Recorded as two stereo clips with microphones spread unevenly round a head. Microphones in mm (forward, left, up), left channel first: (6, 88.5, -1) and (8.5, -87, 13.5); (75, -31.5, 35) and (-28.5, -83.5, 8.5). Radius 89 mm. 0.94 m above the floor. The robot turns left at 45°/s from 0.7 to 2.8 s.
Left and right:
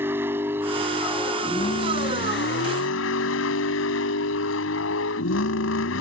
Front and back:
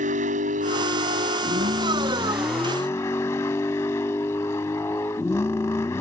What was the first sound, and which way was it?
A vehicle, 165° right.